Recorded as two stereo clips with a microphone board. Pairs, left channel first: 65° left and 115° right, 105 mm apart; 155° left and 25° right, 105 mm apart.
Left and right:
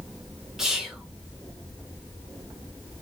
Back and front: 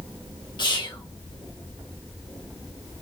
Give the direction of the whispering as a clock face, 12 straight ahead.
7 o'clock.